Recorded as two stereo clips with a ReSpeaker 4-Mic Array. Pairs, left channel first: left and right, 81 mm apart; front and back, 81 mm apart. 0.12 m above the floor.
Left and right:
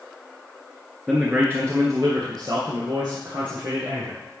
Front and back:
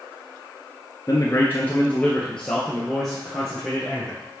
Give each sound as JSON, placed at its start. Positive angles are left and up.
{"t": 1.1, "sound": "a man speaking", "azimuth_deg": -20, "distance_m": 1.3}